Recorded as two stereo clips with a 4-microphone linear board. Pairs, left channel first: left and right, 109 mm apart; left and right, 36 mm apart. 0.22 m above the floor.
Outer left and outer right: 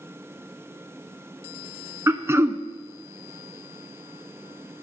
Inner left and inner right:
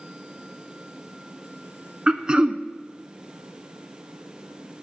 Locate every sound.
2.1 s throat clearing: 25° right (ahead or behind), 0.5 m